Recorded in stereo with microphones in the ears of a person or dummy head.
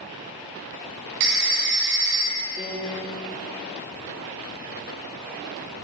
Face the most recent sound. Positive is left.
turn(degrees=15)  # may be behind; listen again after turning